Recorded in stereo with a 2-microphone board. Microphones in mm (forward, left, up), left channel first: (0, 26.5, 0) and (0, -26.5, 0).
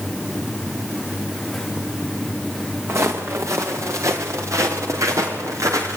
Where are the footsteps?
60° right (ahead or behind), 4.5 m; by 6.0 s 85° right, 6.5 m.